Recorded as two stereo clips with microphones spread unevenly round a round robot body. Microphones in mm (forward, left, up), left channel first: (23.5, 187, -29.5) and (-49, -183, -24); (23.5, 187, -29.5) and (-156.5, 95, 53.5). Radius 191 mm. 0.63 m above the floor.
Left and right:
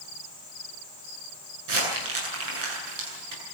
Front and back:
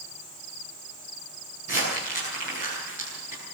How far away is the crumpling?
About 9 m.